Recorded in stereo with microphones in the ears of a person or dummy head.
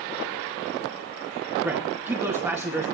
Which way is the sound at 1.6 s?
10° right (ahead or behind).